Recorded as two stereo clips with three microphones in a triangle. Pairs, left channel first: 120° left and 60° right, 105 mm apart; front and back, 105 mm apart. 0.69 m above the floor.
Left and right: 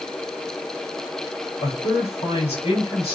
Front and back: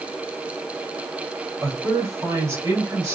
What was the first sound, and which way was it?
A man speaking, 120° left.